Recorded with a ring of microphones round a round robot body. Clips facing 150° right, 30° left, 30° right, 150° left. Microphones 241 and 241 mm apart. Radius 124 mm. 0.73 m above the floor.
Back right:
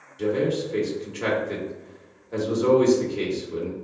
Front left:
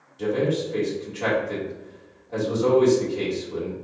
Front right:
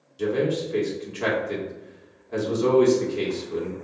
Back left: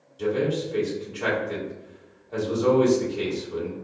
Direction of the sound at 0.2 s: 85° right.